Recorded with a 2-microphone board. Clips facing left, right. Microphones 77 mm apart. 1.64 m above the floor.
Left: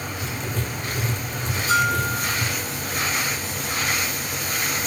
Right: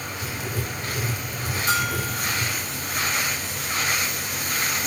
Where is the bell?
85° right, 8.5 m.